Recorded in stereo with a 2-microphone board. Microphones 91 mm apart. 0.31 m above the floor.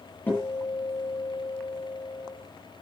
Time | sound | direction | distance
0.3 | a guitar | 20° left (ahead or behind) | 9 m